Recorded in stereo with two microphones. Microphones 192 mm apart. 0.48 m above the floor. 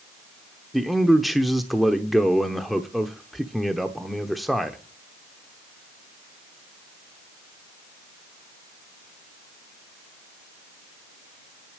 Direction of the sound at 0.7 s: Centre (ahead or behind).